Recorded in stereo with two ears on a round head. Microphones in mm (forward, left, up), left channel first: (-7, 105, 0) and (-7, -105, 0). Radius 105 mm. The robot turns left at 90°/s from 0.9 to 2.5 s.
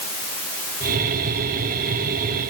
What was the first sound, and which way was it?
Only background noise.